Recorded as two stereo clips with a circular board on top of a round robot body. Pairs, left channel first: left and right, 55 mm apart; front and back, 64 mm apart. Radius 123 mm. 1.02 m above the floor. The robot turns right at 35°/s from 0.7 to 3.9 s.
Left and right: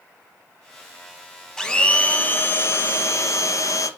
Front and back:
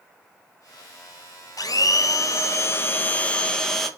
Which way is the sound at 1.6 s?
10° left.